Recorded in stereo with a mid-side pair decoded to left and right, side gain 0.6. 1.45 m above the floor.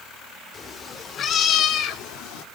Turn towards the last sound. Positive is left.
turn(degrees=75)